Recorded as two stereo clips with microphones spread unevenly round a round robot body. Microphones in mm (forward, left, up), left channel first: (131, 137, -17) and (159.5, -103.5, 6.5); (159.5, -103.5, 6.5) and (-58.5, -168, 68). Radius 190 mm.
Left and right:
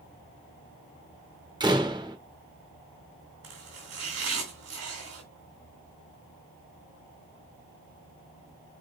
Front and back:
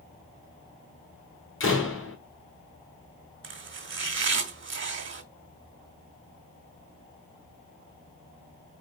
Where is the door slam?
10° right, 1.9 m.